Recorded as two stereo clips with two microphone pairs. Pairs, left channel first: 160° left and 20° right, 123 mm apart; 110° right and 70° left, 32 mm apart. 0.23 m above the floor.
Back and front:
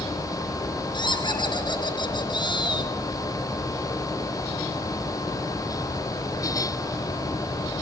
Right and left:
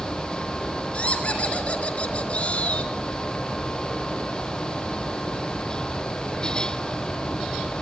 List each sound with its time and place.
0.9 s laughter: 155° right, 3.5 m